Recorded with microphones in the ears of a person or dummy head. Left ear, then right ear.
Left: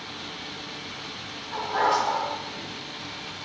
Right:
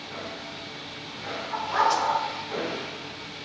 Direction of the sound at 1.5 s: 65° right (ahead or behind).